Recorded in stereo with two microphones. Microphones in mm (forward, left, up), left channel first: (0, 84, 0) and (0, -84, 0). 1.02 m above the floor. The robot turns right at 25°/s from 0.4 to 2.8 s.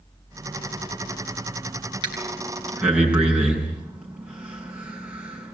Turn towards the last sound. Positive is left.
turn(degrees=-10)  # may be behind; listen again after turning